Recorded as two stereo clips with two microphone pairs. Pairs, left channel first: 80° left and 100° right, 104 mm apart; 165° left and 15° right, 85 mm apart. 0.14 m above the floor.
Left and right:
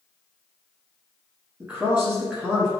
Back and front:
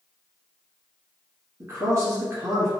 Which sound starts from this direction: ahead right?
A man speaking, at 1.6 s.